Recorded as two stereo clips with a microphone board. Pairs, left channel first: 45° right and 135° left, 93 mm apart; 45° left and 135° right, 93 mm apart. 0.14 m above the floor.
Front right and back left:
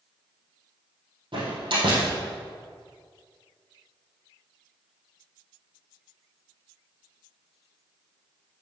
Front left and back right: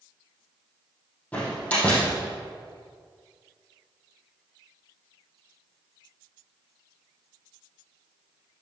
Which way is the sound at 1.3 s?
120° left.